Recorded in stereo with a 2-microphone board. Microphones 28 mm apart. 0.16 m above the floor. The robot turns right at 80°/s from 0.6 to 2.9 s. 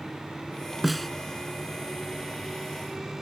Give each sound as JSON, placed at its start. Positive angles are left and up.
{"t": 0.8, "sound": "a snare drum", "side_deg": -5}